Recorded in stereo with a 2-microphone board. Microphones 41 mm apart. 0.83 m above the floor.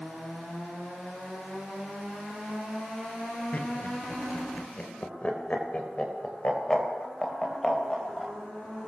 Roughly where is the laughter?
Left.